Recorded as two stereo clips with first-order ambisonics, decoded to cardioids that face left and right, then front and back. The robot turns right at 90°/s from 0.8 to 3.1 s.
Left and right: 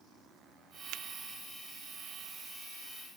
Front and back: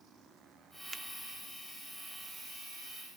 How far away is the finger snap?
About 0.9 m.